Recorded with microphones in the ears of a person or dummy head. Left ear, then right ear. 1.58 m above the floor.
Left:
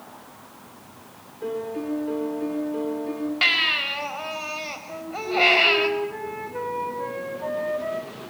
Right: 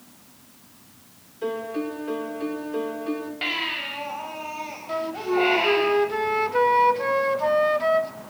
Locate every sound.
1.4 s a piano: 30° right (ahead or behind), 4 m
3.4 s a baby crying: 40° left (ahead or behind), 4.5 m
4.9 s a flute: 55° right (ahead or behind), 1.7 m